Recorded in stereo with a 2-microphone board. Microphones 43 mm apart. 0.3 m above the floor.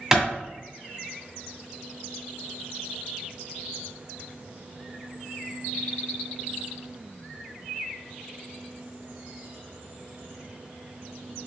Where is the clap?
15° right (ahead or behind), 1.4 m.